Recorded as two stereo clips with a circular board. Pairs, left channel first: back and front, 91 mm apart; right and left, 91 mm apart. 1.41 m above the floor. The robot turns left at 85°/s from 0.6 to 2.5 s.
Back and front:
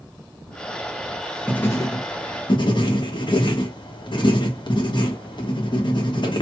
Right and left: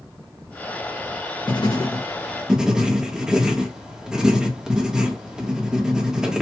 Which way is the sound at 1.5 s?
100° right.